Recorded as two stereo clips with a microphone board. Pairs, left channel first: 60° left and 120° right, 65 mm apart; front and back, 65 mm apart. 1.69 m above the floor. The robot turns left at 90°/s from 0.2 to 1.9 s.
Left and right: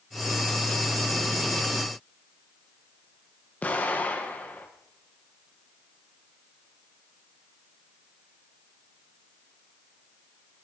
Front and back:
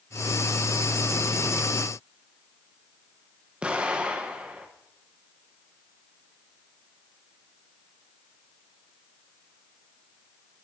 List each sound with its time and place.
3.6 s an explosion: 115° left, 1.0 m